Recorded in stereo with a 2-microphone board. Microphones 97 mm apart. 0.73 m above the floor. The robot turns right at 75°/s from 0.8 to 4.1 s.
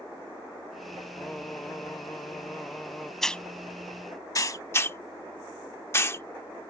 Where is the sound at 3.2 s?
5° left (ahead or behind); by 4.6 s 35° left (ahead or behind).